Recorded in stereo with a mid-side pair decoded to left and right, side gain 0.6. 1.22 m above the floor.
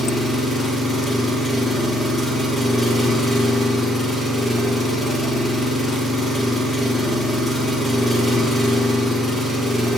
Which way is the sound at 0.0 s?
10° left.